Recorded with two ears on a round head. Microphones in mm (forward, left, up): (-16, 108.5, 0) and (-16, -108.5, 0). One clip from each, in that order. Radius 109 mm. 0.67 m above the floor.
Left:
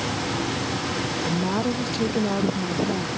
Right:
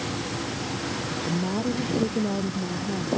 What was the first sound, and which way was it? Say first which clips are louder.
A woman speaking: left 3 dB; 50° left (ahead or behind).